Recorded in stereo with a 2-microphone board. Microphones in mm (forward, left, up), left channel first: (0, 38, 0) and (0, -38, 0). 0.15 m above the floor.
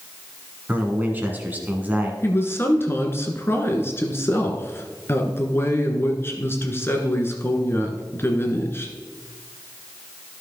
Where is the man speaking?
20° right (ahead or behind), 1.4 m.